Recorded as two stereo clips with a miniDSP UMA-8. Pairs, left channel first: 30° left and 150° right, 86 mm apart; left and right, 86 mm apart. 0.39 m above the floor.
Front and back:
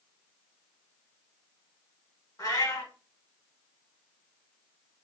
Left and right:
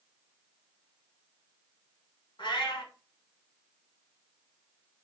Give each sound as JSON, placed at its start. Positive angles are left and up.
{"t": 2.4, "sound": "a cat meowing", "azimuth_deg": 80, "distance_m": 1.1}